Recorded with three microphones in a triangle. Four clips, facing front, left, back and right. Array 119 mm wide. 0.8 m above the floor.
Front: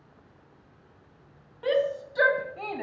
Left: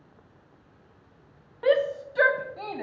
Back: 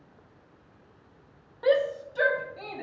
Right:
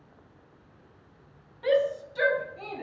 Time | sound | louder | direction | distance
1.6 | a shout | left 2 dB, back 2 dB | 105° left | 1.2 m